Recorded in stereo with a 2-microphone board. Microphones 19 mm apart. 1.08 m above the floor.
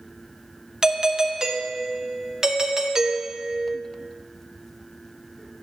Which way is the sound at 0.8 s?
35° right (ahead or behind).